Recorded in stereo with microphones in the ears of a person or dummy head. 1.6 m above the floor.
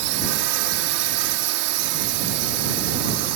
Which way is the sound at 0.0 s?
85° right.